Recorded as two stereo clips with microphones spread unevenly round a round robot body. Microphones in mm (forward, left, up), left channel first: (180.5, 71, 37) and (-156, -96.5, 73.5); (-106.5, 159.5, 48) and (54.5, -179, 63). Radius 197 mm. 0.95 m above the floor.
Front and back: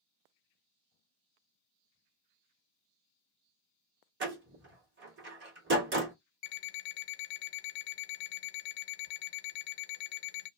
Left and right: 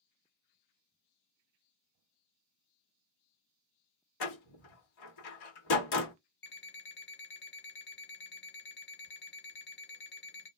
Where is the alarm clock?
50° left, 0.6 m.